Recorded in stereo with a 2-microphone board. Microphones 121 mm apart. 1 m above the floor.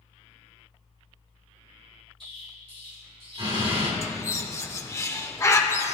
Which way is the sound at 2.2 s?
50° right (ahead or behind).